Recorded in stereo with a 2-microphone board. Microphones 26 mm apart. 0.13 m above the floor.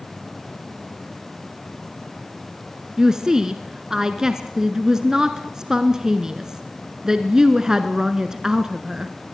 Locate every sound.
3.0 s a woman speaking: 25° right (ahead or behind), 1.3 m